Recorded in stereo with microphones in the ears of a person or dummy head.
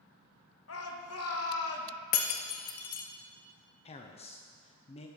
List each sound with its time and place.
0.7 s a shout: 70° left (ahead or behind), 1.1 m
2.1 s breaking glass: 45° left (ahead or behind), 0.5 m
3.9 s a man speaking: 30° left (ahead or behind), 0.7 m